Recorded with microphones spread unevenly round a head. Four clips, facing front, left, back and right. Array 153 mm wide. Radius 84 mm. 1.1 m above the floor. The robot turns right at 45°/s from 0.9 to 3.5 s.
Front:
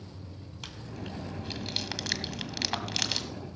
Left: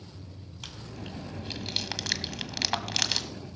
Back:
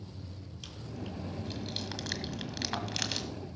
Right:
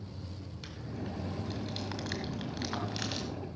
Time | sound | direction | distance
0.6 | chewing | 30° left | 1.6 m